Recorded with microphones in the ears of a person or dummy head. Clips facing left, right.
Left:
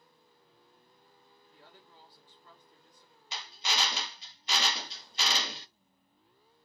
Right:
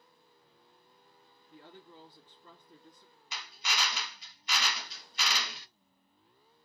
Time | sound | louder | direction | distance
1.5 | a woman speaking | right 7 dB | 50° right (ahead or behind) | 2.5 m
3.3 | a drill | left 3 dB | 30° left (ahead or behind) | 0.5 m